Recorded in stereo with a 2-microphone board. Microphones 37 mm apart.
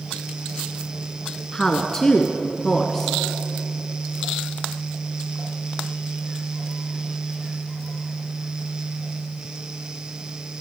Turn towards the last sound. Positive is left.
turn(degrees=15)  # may be behind; listen again after turning